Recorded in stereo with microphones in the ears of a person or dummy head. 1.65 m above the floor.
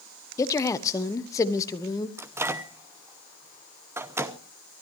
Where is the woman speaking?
15° left (ahead or behind), 1.1 m.